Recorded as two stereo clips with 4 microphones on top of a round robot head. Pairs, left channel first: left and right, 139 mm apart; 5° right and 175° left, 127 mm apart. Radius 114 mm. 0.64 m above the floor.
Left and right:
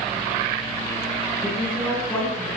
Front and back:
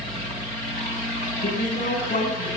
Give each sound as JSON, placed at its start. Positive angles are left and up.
{"t": 1.4, "sound": "a man speaking", "azimuth_deg": 10, "distance_m": 9.0}